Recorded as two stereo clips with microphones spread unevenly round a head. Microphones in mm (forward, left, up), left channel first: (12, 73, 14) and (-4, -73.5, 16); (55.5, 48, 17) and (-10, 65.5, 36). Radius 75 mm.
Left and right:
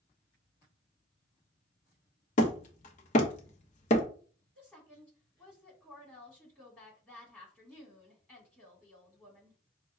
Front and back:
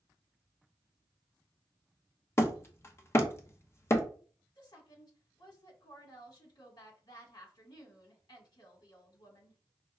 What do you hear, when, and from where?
2.4 s hammering: 40° left, 0.8 m
4.5 s a woman speaking: 5° left, 2 m